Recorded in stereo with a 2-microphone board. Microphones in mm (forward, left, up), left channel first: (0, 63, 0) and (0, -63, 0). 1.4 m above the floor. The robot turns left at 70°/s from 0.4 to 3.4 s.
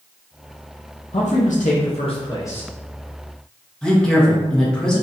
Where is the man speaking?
115° left, 0.7 m; by 2.7 s 5° left, 0.7 m.